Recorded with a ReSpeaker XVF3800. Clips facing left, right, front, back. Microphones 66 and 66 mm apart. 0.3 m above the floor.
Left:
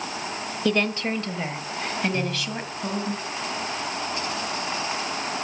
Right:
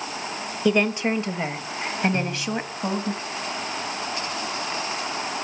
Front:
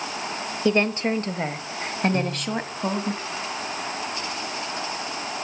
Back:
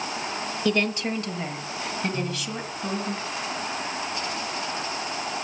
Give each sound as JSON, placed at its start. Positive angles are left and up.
{"t": 0.7, "sound": "a woman speaking", "azimuth_deg": -25, "distance_m": 1.0}
{"t": 2.1, "sound": "a piano", "azimuth_deg": -40, "distance_m": 7.5}